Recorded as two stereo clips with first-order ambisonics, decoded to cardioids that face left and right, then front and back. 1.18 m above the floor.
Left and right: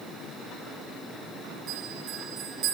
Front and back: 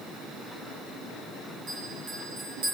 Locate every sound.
1.7 s a bell: 145° right, 6.5 m